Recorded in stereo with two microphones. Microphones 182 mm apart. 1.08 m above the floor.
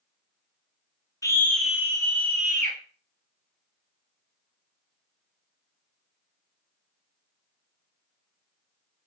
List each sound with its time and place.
1.2 s a scream: 20° left (ahead or behind), 0.7 m; by 2.8 s 50° right (ahead or behind), 0.8 m